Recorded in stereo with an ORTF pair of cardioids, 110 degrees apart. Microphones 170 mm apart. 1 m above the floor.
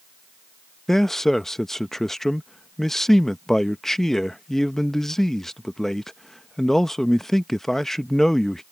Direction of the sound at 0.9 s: Straight ahead.